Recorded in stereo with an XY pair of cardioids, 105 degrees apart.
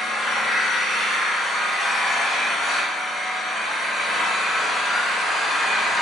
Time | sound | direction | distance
0.0 | an engine running | 50° left | 1.4 m